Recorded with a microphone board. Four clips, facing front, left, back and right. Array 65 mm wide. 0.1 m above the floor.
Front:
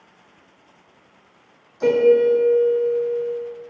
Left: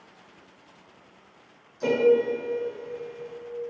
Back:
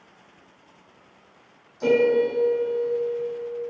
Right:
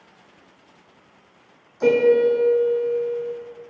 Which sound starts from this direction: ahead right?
A piano, at 1.8 s.